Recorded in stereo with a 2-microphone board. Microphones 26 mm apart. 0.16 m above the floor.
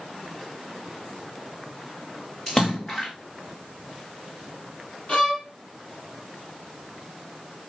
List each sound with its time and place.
2.5 s a splash: 25° left (ahead or behind), 2.5 m
5.1 s a violin: 40° left (ahead or behind), 5.5 m